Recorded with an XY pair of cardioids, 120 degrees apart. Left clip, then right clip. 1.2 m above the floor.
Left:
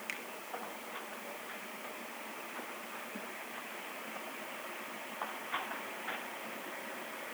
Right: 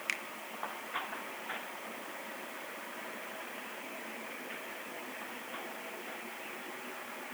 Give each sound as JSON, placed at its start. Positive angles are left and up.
{"t": 0.1, "sound": "a finger snap", "azimuth_deg": -40, "distance_m": 1.3}